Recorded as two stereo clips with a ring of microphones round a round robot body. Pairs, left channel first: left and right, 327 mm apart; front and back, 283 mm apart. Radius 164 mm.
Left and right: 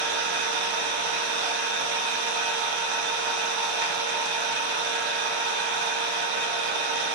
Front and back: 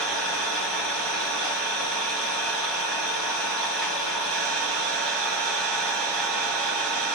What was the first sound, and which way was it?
An engine running, 90° right.